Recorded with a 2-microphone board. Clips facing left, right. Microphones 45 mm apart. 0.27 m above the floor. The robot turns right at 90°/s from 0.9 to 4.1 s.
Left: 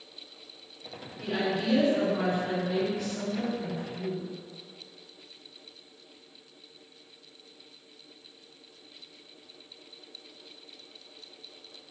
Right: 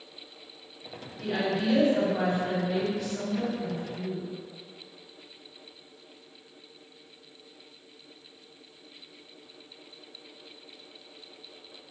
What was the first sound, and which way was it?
A woman speaking, 175° right.